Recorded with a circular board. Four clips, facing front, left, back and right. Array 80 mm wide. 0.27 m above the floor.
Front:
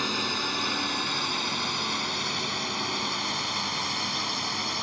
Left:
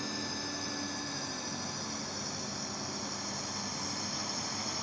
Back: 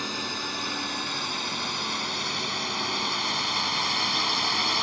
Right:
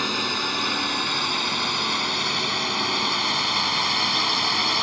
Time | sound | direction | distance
0.0 | a drone | 75° right | ?